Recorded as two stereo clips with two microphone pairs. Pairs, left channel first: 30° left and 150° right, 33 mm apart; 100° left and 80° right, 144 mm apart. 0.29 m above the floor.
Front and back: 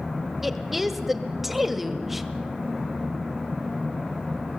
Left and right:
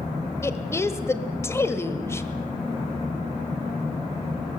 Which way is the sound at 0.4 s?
135° left.